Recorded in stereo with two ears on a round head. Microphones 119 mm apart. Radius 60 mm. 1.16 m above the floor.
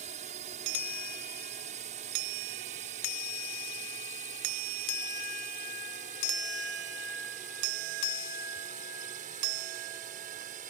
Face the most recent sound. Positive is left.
turn(degrees=-65)  # may be behind; listen again after turning